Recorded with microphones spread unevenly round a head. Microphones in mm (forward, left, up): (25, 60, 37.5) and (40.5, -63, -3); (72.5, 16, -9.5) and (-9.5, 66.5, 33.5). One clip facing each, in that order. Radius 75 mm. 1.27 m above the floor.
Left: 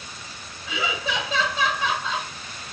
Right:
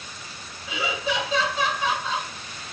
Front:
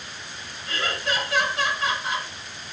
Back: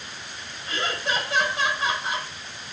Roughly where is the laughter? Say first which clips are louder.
Right 1 dB, even; left.